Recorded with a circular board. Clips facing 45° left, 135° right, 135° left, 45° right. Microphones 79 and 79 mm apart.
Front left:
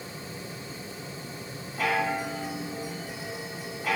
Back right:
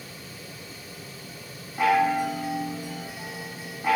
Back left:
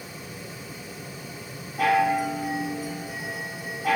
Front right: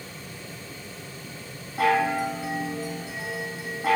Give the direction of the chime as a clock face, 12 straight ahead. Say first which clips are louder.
Back right 6 dB, back left 1 dB; 3 o'clock.